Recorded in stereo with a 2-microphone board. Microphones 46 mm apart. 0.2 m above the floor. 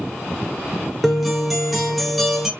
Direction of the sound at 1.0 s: Centre (ahead or behind).